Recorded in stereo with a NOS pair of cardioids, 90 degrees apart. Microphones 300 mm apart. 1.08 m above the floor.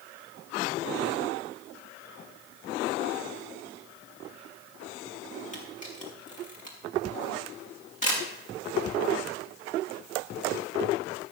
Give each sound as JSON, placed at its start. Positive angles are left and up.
{"t": 5.5, "sound": "a camera shutter", "azimuth_deg": 25, "distance_m": 5.5}